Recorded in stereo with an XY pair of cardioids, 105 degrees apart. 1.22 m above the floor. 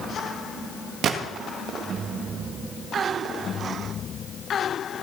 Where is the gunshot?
70° right, 1.7 m.